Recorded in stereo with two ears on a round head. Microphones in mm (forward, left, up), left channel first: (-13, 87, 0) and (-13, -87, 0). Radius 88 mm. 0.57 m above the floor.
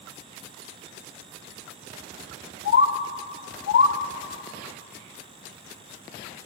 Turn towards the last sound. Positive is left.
turn(degrees=70)  # may be behind; listen again after turning